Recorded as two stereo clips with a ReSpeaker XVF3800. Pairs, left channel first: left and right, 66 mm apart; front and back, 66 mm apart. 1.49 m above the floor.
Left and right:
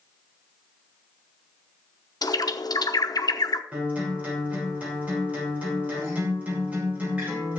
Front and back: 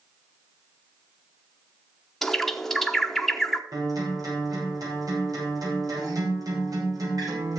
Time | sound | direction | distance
2.2 | a bird | 85° left | 1.0 m
3.7 | a guitar | 160° right | 6.5 m